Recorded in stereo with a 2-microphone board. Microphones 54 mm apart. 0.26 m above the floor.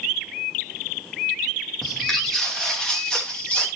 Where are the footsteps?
10° left (ahead or behind), 4 m; by 3.7 s 25° left (ahead or behind), 3.5 m.